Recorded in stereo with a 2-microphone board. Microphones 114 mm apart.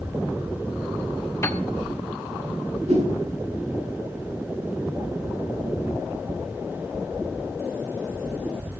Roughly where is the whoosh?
Right.